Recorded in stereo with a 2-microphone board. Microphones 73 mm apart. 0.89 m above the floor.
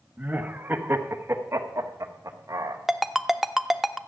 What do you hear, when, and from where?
0.2 s laughter: 20° right (ahead or behind), 1.6 m; by 2.8 s 55° right (ahead or behind), 1.5 m
2.9 s a ringtone: centre (ahead or behind), 0.6 m